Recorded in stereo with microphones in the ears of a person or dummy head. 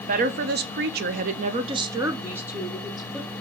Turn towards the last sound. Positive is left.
turn(degrees=5)  # may be behind; listen again after turning